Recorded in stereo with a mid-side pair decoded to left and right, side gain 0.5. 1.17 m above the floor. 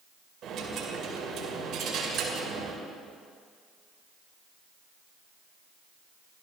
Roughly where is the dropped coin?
Ahead right.